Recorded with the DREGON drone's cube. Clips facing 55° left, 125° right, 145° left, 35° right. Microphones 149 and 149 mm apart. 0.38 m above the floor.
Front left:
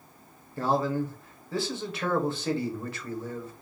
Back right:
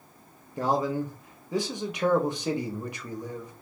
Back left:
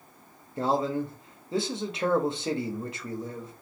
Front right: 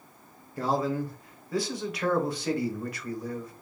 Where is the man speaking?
Straight behind, 0.9 m.